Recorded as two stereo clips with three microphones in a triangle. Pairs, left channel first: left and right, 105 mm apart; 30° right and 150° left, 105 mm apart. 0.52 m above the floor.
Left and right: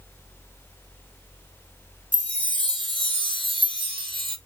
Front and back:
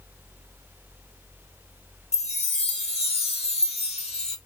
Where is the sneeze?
I don't hear a sneeze.